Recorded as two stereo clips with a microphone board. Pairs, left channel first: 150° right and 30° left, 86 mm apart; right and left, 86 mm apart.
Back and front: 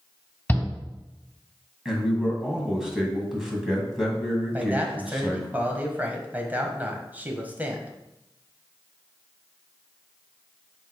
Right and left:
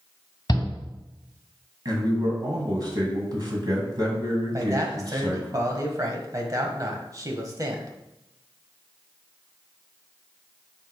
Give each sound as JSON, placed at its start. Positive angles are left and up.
{"t": 0.5, "sound": "a shout", "azimuth_deg": -80, "distance_m": 2.0}
{"t": 1.9, "sound": "a man speaking", "azimuth_deg": 115, "distance_m": 1.8}
{"t": 4.5, "sound": "a man speaking", "azimuth_deg": 90, "distance_m": 1.3}